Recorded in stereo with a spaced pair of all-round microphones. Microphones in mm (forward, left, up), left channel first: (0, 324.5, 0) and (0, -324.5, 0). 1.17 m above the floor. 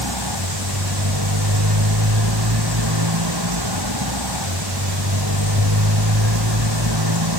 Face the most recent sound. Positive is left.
turn(degrees=-35)  # may be behind; listen again after turning